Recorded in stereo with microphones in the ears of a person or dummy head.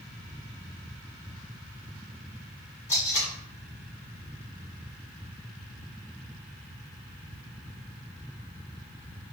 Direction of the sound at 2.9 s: 15° left (ahead or behind).